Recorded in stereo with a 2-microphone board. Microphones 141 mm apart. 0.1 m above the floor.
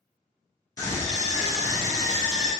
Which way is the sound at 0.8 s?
25° left (ahead or behind).